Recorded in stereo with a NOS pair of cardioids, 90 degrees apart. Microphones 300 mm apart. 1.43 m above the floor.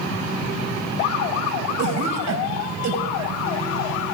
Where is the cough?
65° right, 5.5 m.